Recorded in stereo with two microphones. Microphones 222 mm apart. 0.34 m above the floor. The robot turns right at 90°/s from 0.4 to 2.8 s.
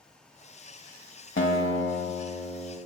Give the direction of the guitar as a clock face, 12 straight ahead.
10 o'clock.